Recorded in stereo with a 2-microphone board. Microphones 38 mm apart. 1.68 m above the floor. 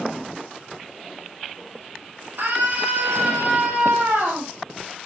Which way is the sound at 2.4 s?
65° right (ahead or behind).